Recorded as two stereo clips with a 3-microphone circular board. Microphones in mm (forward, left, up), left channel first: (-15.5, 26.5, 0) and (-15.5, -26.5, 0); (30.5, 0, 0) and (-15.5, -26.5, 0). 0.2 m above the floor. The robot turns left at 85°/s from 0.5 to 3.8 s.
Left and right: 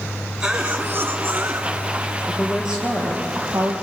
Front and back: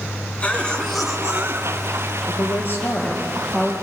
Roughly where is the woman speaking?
Ahead left.